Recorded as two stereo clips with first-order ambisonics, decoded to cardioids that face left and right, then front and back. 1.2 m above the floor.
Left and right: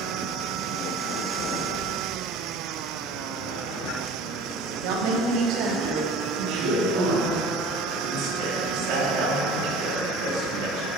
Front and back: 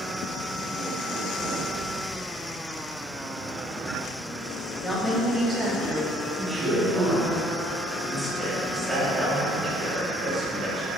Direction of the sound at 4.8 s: 85° right.